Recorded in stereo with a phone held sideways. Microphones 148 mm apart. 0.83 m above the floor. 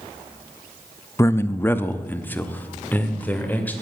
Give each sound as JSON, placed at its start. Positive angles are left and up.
{"t": 1.2, "sound": "a man speaking", "side_deg": 20, "distance_m": 0.6}